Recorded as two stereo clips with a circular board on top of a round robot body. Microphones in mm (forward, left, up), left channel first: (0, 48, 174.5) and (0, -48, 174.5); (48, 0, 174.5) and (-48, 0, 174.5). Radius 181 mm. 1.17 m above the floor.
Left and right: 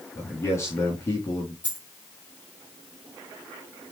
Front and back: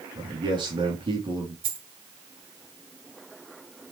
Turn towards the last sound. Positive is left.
turn(degrees=-165)